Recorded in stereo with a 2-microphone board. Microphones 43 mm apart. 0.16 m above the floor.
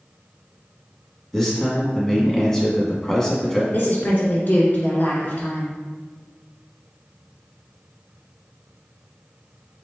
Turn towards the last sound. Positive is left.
turn(degrees=45)  # may be behind; listen again after turning